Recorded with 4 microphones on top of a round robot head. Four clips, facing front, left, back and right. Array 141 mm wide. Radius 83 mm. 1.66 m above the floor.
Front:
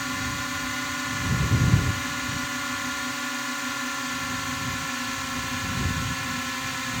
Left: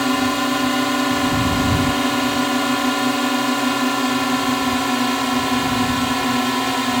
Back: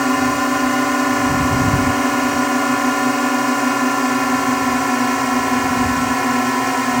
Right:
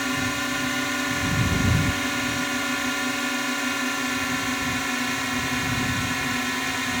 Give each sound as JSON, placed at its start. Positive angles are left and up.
{"t": 0.0, "sound": "a drone", "azimuth_deg": 155}